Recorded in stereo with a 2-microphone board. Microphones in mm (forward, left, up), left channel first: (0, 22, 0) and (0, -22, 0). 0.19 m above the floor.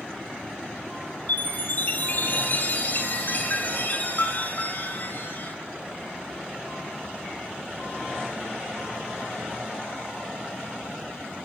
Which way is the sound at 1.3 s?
45° left (ahead or behind).